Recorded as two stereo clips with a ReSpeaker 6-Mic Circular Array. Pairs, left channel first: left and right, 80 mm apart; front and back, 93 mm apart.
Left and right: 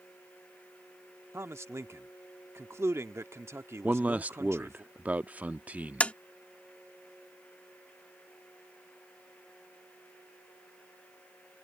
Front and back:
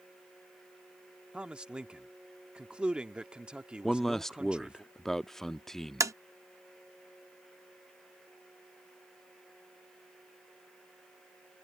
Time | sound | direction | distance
1.3 | a man speaking | 105° right | ?
3.8 | a man speaking | 75° right | ?
6.0 | tapping | 155° left | ?